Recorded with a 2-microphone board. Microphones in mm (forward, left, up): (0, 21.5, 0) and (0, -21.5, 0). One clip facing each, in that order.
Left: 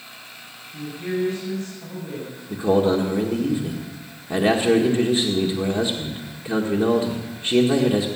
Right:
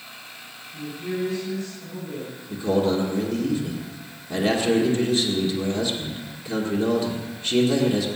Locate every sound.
0.7 s a woman speaking: 70° left (ahead or behind), 8 m
2.5 s a man speaking: 40° left (ahead or behind), 1.8 m